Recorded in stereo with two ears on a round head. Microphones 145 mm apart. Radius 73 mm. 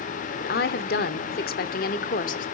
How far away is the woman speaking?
About 1.7 m.